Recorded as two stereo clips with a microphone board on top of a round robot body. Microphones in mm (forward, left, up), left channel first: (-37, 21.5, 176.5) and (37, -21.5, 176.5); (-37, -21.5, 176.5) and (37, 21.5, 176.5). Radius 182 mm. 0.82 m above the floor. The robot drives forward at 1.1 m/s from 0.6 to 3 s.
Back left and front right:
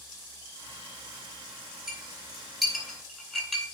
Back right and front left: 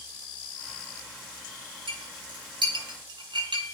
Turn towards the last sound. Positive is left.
turn(degrees=70)